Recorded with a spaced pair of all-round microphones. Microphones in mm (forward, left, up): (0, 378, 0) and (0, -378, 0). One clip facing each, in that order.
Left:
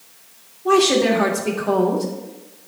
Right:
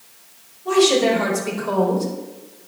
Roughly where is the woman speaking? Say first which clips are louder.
Even; left.